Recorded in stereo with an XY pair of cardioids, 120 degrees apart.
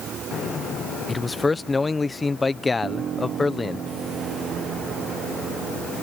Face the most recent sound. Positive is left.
turn(degrees=-50)